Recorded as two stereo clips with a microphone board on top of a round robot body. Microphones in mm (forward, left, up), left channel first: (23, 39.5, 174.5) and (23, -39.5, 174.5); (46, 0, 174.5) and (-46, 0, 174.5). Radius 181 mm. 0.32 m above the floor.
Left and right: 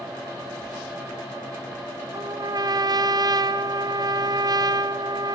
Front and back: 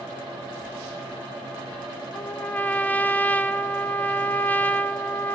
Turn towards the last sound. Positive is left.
turn(degrees=-70)